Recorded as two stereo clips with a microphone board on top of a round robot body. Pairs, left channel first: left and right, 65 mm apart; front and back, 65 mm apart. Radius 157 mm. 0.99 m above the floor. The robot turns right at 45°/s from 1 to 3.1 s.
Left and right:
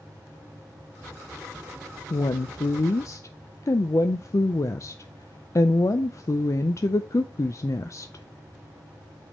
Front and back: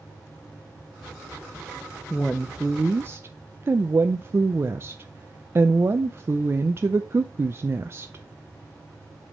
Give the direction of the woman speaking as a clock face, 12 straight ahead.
9 o'clock.